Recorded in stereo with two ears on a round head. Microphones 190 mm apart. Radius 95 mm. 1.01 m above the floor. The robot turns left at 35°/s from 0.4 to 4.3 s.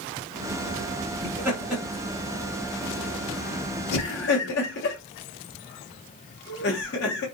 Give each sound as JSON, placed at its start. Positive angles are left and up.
{"t": 1.2, "sound": "laughter", "side_deg": -15, "distance_m": 0.7}